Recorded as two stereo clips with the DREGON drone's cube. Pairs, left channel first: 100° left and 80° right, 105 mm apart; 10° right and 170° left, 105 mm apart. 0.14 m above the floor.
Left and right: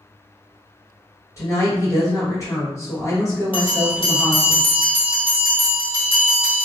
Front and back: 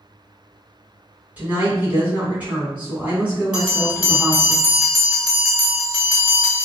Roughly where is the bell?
Left.